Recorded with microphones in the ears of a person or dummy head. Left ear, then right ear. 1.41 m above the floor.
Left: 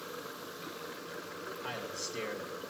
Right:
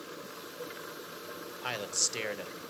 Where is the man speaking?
75° right (ahead or behind), 0.7 m.